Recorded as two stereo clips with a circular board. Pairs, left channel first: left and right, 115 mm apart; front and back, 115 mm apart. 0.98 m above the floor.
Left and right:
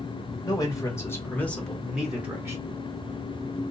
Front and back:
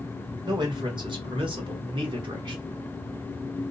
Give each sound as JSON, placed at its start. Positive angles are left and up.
{"t": 0.4, "sound": "a man speaking", "azimuth_deg": 140, "distance_m": 1.5}